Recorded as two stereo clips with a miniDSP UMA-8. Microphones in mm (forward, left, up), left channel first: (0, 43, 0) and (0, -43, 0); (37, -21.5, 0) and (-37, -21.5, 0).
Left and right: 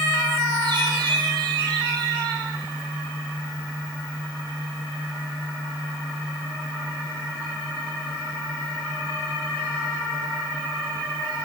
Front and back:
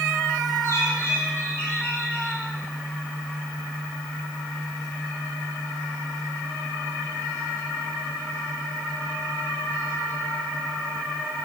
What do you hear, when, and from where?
0.6 s a bird: 55° right, 6.5 m